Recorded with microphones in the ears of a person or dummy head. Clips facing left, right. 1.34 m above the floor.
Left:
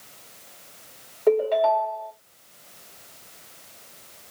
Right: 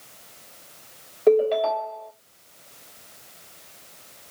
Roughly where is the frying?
I don't hear frying.